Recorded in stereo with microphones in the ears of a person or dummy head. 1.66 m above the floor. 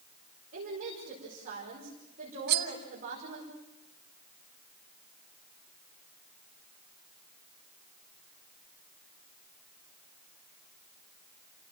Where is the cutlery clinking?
65° right (ahead or behind), 1.9 m.